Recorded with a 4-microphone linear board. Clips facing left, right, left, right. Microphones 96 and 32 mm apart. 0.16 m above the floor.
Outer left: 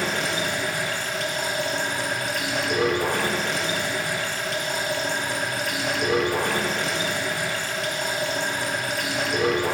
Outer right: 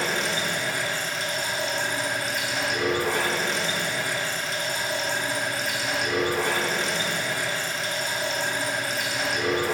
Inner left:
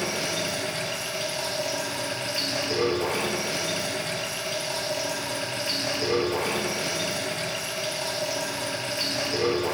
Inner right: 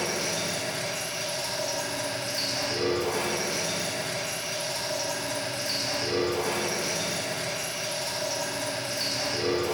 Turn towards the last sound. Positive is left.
turn(degrees=60)  # may be behind; listen again after turning